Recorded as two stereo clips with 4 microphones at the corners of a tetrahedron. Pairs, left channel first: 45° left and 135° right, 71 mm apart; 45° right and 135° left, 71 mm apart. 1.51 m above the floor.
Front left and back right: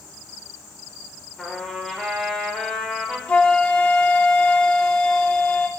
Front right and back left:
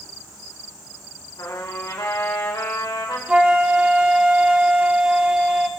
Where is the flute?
85° left, 1.1 m.